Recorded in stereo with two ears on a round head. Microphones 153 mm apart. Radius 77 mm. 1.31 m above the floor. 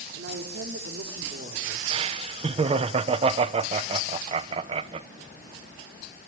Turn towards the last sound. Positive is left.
turn(degrees=-35)  # may be behind; listen again after turning